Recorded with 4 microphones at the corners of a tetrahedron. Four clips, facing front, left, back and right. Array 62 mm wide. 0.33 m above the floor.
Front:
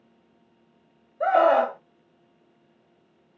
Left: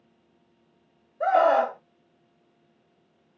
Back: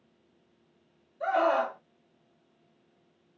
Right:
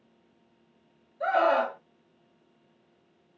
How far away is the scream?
About 1.9 m.